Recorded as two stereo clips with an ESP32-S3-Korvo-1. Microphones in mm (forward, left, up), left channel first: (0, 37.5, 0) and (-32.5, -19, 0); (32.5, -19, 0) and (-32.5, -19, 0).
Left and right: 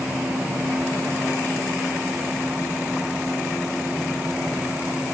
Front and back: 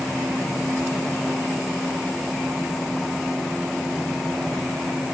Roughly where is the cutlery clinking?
I don't hear cutlery clinking.